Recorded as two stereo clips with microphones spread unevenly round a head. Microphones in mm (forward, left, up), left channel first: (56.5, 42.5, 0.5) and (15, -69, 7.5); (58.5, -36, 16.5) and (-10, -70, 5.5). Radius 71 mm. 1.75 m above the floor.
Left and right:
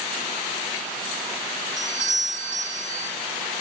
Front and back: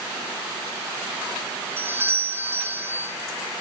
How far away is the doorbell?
About 1.5 m.